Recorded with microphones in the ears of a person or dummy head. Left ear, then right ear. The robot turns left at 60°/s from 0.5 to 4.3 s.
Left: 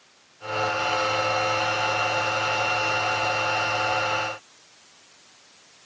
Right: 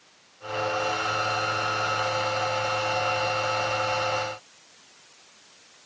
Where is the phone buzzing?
No phone buzzing in this recording.